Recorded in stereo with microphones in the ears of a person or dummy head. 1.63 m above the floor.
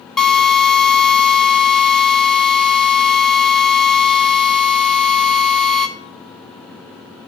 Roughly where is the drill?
Centre.